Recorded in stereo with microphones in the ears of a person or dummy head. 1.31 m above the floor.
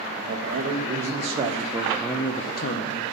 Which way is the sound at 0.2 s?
55° right (ahead or behind).